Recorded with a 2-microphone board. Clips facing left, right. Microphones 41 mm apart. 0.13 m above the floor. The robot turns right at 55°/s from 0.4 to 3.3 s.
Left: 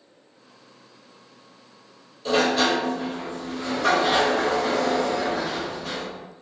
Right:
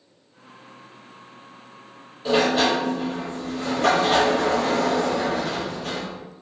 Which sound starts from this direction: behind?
A sliding door, at 2.2 s.